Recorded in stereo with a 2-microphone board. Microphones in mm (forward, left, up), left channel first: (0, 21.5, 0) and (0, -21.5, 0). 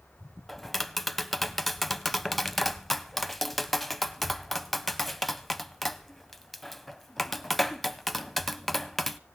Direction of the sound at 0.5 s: 5° left (ahead or behind).